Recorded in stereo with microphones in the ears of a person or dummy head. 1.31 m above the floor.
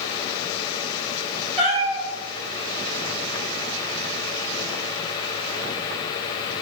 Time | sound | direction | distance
1.6 | a cat meowing | 25° right (ahead or behind) | 1.5 m